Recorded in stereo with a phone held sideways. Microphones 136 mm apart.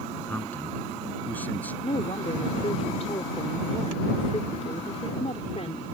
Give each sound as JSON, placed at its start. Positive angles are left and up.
{"t": 0.3, "sound": "a man speaking", "side_deg": 10}
{"t": 1.8, "sound": "a woman speaking", "side_deg": 50}